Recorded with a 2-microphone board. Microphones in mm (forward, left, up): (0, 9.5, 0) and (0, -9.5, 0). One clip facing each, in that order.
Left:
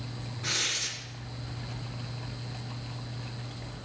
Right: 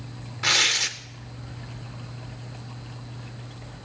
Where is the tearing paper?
60° right (ahead or behind), 0.7 m.